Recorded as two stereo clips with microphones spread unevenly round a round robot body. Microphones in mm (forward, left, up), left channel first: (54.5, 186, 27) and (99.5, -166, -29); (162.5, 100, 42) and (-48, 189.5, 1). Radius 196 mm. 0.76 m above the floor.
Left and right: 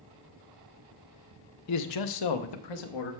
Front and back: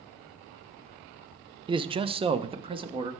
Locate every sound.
1.7 s a man speaking: 125° left, 0.7 m; by 3.1 s 90° left, 1.4 m